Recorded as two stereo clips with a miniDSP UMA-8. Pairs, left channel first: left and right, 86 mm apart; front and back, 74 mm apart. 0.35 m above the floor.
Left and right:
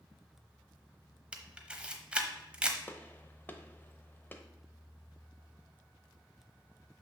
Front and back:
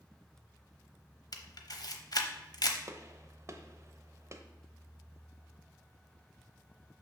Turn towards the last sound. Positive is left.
turn(degrees=150)